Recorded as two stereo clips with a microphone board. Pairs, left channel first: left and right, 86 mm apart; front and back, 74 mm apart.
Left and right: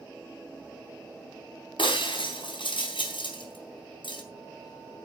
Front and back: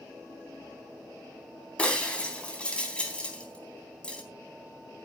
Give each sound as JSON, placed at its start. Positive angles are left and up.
{"t": 1.8, "sound": "breaking glass", "azimuth_deg": 75, "distance_m": 3.5}